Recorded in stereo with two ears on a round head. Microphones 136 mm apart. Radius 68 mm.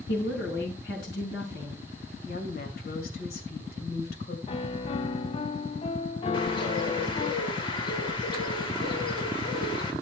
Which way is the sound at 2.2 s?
70° left (ahead or behind).